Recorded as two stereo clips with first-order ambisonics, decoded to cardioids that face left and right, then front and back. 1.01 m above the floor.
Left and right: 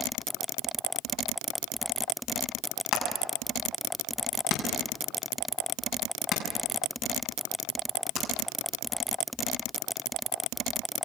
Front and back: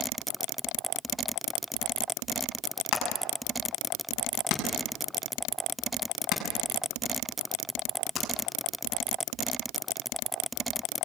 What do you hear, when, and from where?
2.9 s hammering: 40° left, 6.5 m